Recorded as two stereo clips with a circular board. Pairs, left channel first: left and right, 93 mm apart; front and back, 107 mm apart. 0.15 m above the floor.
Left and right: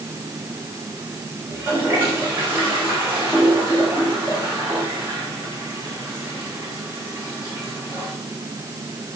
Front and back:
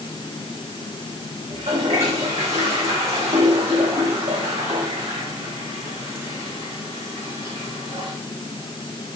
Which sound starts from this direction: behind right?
A toilet flushing, at 1.5 s.